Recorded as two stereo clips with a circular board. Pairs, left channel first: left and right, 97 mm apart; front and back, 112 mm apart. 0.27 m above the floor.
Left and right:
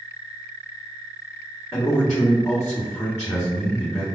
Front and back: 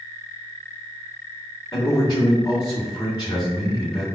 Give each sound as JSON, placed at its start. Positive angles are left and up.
{"t": 1.7, "sound": "a man speaking", "azimuth_deg": 30, "distance_m": 2.0}